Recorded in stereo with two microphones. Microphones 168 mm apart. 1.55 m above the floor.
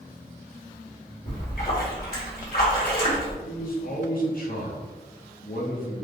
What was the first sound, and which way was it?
A splash, 60° left (ahead or behind).